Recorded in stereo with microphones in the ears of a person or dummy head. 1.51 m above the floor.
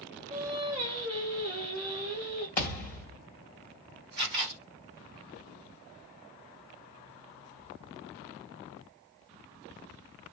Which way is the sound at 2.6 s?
10° left (ahead or behind).